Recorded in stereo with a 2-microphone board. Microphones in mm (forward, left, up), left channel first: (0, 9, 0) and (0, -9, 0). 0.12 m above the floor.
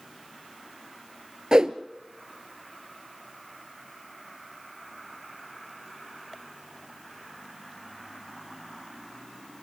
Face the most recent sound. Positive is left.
turn(degrees=-40)  # may be behind; listen again after turning